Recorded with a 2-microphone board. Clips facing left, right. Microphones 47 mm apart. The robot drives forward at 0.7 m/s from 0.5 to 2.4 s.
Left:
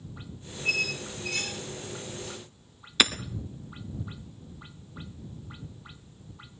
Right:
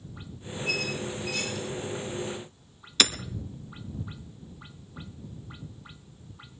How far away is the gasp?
I don't hear a gasp.